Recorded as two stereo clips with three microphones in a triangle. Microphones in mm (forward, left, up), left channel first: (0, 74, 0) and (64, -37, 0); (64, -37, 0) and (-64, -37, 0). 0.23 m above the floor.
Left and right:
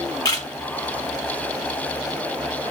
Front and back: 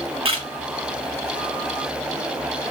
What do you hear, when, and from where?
0.2 s a camera shutter: 165° left, 1.2 m